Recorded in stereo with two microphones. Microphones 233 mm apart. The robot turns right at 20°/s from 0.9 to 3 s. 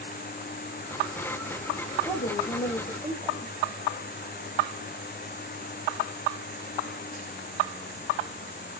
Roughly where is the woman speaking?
Centre.